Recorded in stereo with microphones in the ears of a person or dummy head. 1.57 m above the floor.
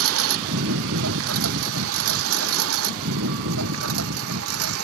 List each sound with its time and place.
0.0 s a lawn mower: 80° right; by 4.8 s 85° right